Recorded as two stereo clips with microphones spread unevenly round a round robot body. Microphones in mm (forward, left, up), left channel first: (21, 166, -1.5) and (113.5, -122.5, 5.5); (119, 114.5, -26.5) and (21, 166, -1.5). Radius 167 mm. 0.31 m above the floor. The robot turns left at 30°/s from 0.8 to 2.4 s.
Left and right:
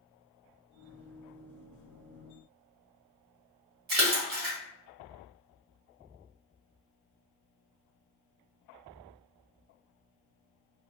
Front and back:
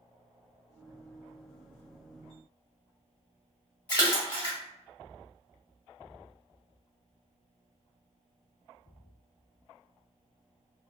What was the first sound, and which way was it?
A splash, 45° right.